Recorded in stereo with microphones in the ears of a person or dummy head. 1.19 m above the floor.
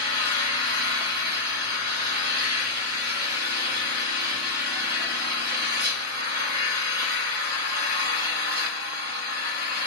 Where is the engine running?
45° right (ahead or behind), 2 m.